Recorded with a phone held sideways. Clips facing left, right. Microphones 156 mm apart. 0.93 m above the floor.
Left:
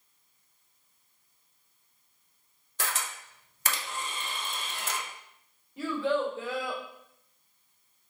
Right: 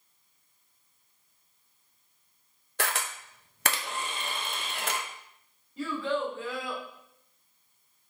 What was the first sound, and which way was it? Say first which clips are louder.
A camera shutter: right 3 dB; 70° right (ahead or behind).